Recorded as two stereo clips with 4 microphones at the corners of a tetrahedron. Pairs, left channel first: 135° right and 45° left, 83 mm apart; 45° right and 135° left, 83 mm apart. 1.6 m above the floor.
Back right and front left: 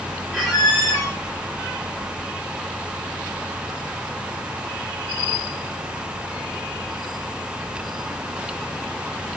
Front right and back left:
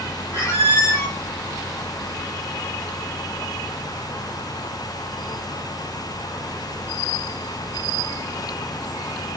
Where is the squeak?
60° right, 1.6 m.